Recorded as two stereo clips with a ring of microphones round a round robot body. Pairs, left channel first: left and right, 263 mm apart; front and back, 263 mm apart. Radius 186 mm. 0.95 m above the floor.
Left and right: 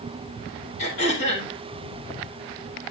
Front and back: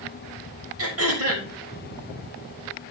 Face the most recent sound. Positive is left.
turn(degrees=150)